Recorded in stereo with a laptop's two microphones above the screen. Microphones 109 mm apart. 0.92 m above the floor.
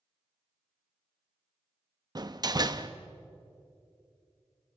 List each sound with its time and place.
2.1 s a door slam: 40° right (ahead or behind), 0.7 m